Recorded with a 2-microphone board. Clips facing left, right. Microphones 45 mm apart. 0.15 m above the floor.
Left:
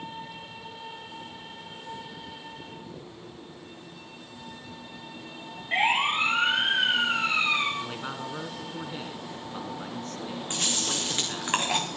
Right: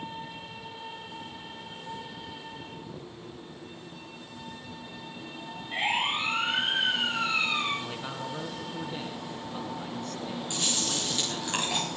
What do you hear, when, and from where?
5.7 s a siren: 70° left (ahead or behind), 9 m
7.8 s a man speaking: 20° left (ahead or behind), 1.5 m
10.5 s chewing: 45° left (ahead or behind), 3.5 m